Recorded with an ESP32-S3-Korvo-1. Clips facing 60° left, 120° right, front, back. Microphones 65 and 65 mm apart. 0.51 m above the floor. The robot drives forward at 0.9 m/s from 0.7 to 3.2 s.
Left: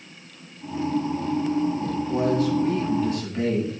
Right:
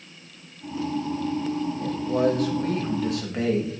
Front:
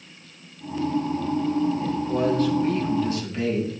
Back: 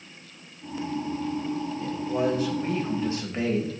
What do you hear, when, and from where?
1.8 s a man speaking: 80° right, 1.7 m; by 3.7 s 125° right, 2.0 m